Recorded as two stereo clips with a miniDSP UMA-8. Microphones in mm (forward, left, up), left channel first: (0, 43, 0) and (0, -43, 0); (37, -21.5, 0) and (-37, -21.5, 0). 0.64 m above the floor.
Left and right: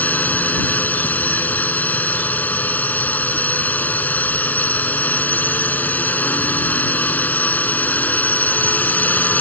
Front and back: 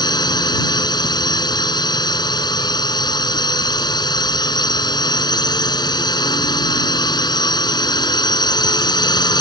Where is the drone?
20° left.